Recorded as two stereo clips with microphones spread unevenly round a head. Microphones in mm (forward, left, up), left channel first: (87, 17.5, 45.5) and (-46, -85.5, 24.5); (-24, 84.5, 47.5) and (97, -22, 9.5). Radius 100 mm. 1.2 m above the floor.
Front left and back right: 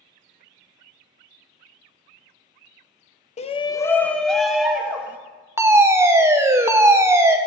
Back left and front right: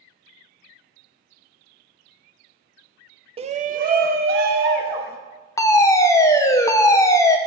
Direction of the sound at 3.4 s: 10° right.